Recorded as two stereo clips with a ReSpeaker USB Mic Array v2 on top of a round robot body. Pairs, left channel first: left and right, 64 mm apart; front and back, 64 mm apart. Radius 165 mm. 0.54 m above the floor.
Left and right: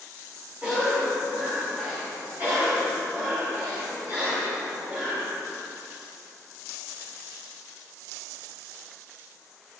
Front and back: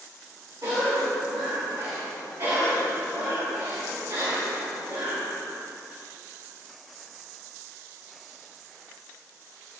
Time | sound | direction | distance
0.6 | a cough | 160° right | 6.5 m